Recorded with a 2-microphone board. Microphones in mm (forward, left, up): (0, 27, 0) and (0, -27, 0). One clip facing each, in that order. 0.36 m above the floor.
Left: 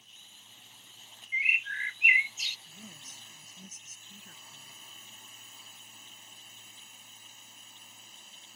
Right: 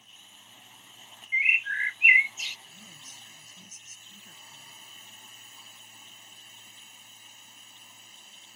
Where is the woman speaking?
50° left (ahead or behind).